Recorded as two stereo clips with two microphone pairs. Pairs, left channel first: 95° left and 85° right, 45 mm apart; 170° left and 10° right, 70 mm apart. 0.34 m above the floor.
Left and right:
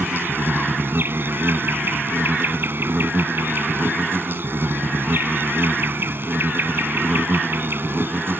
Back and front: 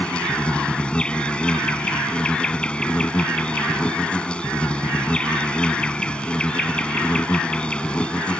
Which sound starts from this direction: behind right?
An insect, at 0.0 s.